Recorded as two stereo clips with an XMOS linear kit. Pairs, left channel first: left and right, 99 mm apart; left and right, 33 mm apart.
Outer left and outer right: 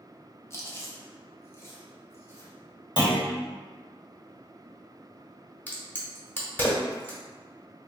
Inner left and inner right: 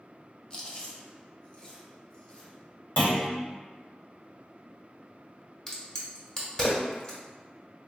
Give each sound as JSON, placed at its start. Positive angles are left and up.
{"t": 0.5, "sound": "chewing", "side_deg": 30, "distance_m": 0.6}
{"t": 3.0, "sound": "a clunk", "side_deg": 60, "distance_m": 1.1}
{"t": 5.7, "sound": "a crack", "side_deg": 20, "distance_m": 1.0}